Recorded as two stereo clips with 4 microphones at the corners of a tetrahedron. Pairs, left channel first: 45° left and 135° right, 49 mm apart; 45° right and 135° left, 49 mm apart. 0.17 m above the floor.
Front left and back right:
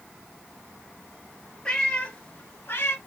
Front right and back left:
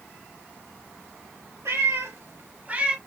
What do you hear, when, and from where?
1.6 s a cat meowing: 115° left, 1.7 m; by 3.0 s 70° left, 1.1 m